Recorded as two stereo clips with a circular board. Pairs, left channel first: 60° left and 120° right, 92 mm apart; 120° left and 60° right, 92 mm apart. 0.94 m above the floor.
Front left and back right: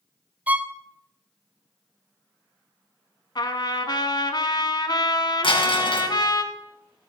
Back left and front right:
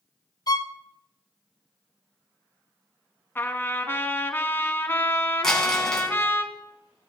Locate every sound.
0.5 s a violin: 165° left, 0.5 m
3.4 s a trumpet: 60° left, 1.2 m
5.4 s crumpling: 35° left, 3.5 m